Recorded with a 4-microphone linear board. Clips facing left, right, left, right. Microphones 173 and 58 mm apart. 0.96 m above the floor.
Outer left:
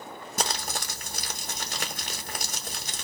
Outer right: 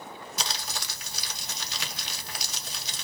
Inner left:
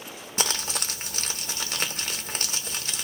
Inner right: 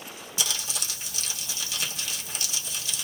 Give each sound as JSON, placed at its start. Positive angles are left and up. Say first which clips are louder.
{"t": 0.4, "sound": "crumpling", "louder": "outer left 7 dB, inner left 4 dB", "side_deg": 50, "distance_m": 0.8}